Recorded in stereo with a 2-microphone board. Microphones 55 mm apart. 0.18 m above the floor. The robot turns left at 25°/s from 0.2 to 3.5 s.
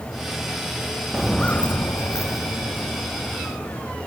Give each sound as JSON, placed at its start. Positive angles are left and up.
{"t": 1.1, "sound": "footsteps", "side_deg": -10}